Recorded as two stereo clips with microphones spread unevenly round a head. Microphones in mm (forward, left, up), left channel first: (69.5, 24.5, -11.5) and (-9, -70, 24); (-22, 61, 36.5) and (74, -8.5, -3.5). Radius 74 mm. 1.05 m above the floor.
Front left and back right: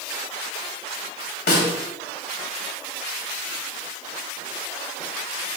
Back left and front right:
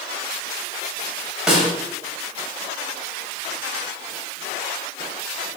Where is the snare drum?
55° left, 3 m.